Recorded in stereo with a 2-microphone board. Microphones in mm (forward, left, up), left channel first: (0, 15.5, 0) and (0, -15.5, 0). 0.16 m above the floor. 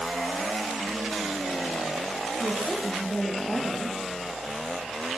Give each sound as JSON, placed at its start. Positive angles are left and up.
{"t": 2.4, "sound": "a woman speaking", "side_deg": 15, "distance_m": 4.5}